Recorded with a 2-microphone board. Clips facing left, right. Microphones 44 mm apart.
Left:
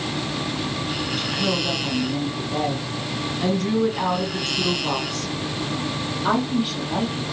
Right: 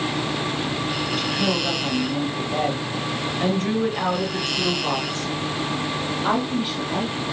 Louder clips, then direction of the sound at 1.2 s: Even; 40° right (ahead or behind).